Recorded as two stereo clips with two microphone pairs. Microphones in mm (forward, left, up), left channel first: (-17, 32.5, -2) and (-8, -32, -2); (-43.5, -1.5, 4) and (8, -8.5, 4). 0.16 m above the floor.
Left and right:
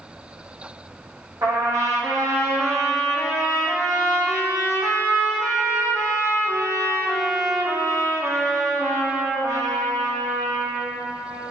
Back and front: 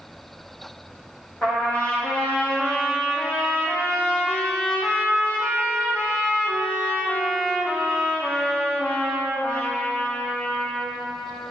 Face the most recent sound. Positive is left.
turn(degrees=-120)